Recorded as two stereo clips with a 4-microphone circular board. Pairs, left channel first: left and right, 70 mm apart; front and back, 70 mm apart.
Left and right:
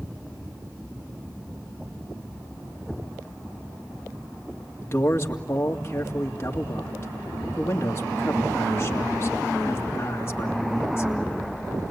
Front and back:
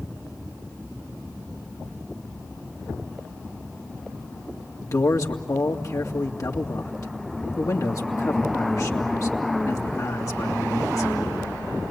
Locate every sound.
4.8 s a man speaking: 40° left, 2.5 m